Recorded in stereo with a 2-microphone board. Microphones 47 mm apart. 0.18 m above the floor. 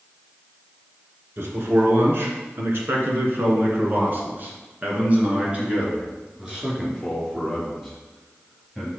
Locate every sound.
1.4 s a man speaking: 60° right (ahead or behind), 2.5 m; by 8.9 s 5° right (ahead or behind), 3.5 m